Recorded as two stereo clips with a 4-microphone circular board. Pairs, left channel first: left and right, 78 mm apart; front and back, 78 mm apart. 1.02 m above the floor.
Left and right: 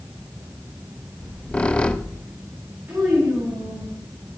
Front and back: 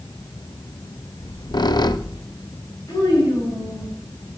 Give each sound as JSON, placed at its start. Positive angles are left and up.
{"t": 1.2, "sound": "a squeak", "azimuth_deg": 15, "distance_m": 0.5}
{"t": 2.9, "sound": "a child speaking", "azimuth_deg": -25, "distance_m": 6.5}